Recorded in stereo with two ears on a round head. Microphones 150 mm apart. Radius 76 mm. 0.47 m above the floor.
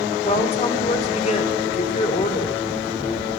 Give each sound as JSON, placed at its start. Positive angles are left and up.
{"t": 0.2, "sound": "a woman speaking", "side_deg": 40, "distance_m": 1.4}